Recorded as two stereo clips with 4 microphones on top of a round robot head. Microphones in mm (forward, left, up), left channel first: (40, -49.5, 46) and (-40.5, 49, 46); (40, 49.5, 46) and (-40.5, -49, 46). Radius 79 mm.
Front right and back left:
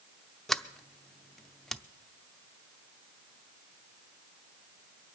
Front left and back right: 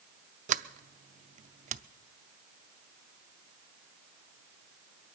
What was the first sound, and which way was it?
A sliding door, 140° right.